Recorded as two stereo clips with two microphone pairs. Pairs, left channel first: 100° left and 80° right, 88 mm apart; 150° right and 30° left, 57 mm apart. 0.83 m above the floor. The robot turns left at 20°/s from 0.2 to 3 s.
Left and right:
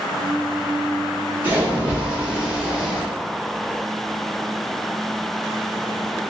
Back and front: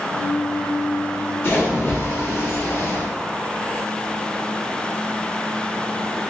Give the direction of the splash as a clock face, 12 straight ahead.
5 o'clock.